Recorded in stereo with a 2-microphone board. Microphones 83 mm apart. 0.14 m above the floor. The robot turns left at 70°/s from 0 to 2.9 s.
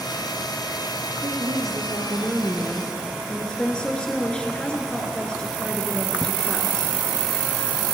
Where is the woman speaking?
80° right, 1.6 m; by 6.9 s 165° left, 1.6 m.